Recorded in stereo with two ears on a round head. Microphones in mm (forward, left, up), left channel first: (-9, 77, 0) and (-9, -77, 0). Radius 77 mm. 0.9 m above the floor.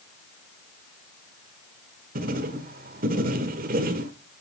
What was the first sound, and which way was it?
Writing, 55° right (ahead or behind).